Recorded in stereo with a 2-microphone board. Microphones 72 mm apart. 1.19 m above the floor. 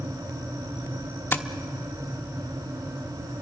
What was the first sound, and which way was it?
Tapping, 30° left (ahead or behind).